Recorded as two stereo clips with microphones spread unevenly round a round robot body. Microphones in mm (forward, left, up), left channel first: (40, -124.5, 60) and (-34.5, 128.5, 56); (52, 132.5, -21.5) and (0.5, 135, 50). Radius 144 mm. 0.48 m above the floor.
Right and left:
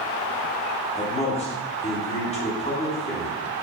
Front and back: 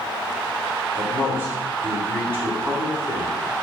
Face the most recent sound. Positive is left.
turn(degrees=-25)